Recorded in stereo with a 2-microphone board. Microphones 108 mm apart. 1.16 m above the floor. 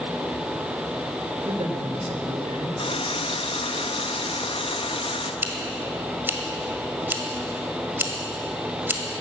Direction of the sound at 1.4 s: 70° right (ahead or behind).